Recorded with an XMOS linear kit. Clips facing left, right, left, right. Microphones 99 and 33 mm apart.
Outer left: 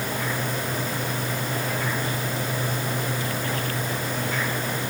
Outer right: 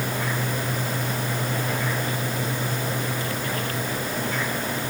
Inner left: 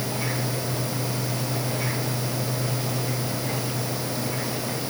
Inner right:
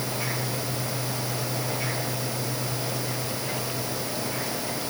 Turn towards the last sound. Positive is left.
No sound to turn to.